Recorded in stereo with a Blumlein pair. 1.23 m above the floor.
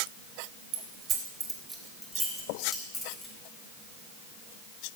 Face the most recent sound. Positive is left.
turn(degrees=20)